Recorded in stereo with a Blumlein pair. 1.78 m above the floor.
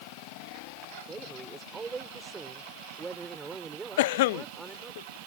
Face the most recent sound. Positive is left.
turn(degrees=50)